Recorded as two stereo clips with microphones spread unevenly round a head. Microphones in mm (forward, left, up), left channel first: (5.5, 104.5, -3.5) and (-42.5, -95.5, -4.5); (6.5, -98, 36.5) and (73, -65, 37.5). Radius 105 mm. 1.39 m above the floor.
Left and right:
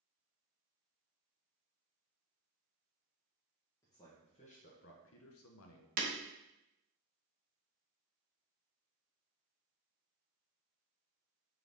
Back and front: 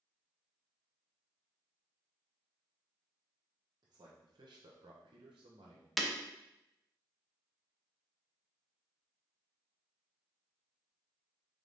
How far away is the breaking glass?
About 0.8 m.